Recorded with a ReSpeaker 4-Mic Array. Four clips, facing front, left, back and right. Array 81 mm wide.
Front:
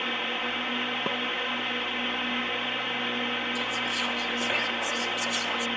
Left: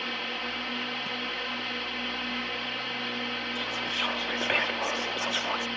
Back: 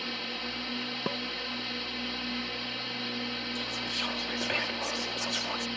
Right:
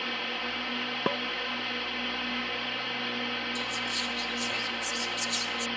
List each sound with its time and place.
0.0 s a drone: straight ahead
1.1 s dishes clattering: 80° right
3.5 s whispering: 85° left